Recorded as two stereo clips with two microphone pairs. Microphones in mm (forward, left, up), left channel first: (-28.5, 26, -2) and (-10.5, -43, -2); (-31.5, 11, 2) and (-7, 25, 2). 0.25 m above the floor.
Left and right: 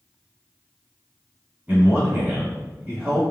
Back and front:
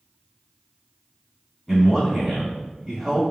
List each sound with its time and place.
1.7 s a man speaking: 85° right, 1.6 m